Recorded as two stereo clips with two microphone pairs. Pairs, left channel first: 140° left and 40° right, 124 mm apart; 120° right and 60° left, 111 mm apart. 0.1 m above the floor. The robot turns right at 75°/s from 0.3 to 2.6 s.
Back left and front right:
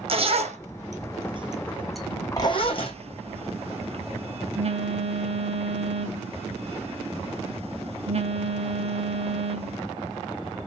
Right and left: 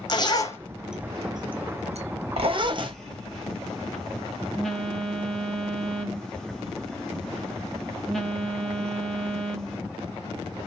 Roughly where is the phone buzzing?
Ahead right.